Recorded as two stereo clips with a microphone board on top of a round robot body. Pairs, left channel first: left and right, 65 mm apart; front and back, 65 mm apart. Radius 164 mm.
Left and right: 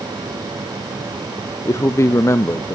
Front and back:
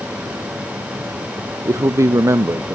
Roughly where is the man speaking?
Behind left.